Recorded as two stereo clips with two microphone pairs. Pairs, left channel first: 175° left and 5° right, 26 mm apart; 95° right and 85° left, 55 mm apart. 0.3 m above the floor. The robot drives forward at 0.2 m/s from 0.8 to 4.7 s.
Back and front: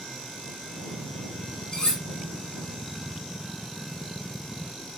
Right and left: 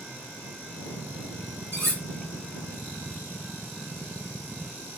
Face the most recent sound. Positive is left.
turn(degrees=135)